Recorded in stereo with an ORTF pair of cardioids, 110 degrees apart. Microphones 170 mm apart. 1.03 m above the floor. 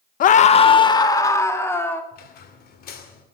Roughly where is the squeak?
Ahead left.